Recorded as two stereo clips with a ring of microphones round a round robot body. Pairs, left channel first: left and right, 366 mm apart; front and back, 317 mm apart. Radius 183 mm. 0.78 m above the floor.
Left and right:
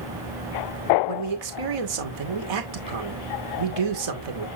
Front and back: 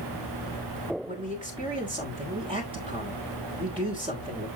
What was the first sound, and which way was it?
A man speaking, 105° right.